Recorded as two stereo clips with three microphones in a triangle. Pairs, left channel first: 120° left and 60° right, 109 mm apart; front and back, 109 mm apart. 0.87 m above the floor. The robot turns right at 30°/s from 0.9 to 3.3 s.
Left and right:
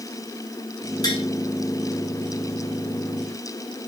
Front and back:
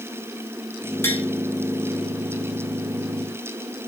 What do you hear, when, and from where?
1.0 s tapping: 70° left, 5.5 m; by 1.2 s 75° left, 5.5 m